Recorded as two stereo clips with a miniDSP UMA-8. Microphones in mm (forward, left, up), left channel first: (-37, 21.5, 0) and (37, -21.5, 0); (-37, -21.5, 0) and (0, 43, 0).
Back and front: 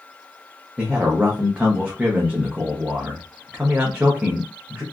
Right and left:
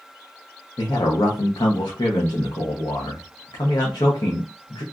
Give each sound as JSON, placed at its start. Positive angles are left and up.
{"t": 0.8, "sound": "a man speaking", "azimuth_deg": -105, "distance_m": 0.7}